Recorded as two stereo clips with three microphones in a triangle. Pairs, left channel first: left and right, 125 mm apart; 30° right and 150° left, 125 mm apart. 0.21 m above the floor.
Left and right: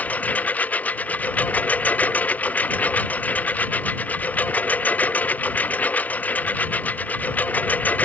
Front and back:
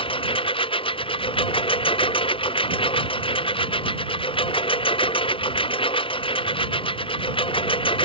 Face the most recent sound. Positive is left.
turn(degrees=15)